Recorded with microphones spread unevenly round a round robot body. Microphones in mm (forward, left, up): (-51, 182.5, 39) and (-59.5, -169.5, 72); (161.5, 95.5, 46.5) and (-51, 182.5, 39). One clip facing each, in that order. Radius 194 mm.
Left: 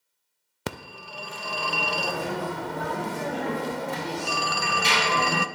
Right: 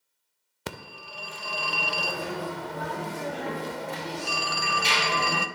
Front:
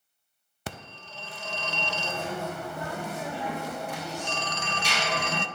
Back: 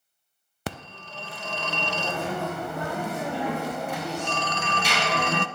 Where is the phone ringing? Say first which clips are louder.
Left 4 dB, back 5 dB; 120° left, 0.5 m.